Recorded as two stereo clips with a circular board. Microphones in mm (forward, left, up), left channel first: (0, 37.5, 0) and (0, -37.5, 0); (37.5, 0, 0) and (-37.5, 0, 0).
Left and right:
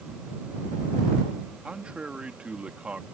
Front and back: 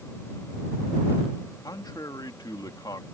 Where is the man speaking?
15° right.